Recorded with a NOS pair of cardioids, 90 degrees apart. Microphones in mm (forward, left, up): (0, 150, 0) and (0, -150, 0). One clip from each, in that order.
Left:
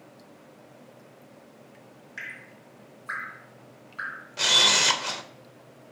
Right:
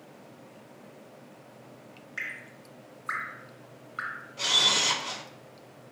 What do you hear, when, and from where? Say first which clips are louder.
2.2 s dripping: right 2 dB; 10° right, 0.8 m
4.4 s a camera shutter: left 4 dB; 60° left, 0.6 m